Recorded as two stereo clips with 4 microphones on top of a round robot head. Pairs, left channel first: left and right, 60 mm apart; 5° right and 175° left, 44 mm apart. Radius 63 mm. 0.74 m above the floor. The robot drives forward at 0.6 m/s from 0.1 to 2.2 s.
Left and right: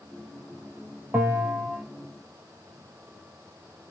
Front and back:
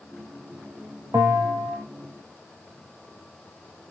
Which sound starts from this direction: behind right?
A bell, at 1.1 s.